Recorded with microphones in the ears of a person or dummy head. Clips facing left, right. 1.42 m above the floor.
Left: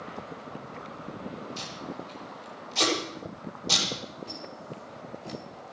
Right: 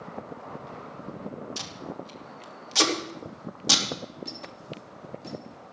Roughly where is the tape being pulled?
Right.